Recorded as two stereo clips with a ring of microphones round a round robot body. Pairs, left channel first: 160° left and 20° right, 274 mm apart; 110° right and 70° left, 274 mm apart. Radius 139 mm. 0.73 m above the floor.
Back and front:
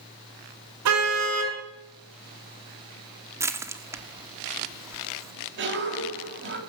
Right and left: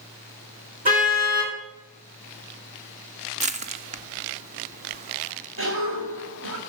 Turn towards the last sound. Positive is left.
turn(degrees=25)